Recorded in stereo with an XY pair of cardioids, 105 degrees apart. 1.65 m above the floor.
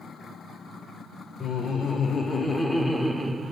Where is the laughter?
50° left, 1.3 m; by 3.5 s 20° right, 0.8 m.